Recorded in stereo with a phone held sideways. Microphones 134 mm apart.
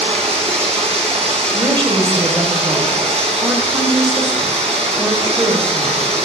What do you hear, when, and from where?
0.0 s running water: 60° right (ahead or behind), 1.6 m
1.5 s a woman speaking: 35° right (ahead or behind), 1.1 m